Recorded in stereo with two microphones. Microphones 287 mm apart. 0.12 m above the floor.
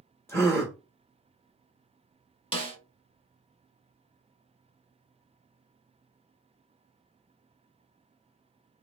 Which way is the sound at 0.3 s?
10° left (ahead or behind).